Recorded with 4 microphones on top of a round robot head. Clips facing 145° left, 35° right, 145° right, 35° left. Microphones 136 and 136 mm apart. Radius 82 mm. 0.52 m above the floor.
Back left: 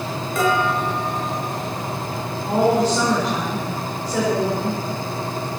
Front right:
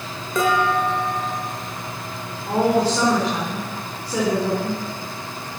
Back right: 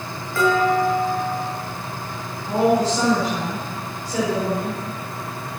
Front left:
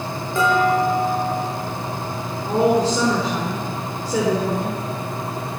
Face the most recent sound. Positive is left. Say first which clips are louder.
# back left 1 dB, front left 1 dB
turn(degrees=45)